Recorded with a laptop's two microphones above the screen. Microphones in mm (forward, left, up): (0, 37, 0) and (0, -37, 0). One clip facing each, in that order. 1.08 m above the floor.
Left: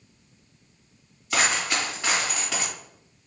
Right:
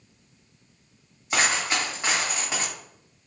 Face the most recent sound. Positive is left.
turn(degrees=-20)  # may be behind; listen again after turning